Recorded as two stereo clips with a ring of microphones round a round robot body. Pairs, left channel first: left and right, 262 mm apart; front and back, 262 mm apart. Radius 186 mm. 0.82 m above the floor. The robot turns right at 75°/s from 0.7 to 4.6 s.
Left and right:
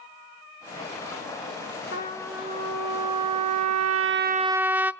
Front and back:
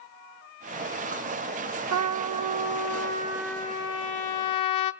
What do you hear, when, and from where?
1.9 s a trumpet: 150° left, 1.0 m; by 4.9 s 5° right, 1.0 m